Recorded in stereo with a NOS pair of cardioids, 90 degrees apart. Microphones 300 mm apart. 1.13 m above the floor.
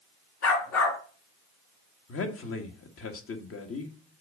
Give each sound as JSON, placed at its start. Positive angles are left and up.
{"t": 0.4, "sound": "a dog barking", "azimuth_deg": 70, "distance_m": 3.5}
{"t": 2.1, "sound": "a man speaking", "azimuth_deg": 50, "distance_m": 1.7}